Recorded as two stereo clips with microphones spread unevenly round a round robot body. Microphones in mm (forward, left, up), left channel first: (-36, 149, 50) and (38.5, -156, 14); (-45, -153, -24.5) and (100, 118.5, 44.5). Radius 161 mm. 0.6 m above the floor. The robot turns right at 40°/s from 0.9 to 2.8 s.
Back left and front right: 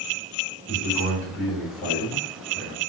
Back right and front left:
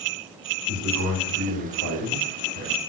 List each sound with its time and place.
0.7 s a man speaking: 15° right, 2 m; by 2.8 s 60° left, 2 m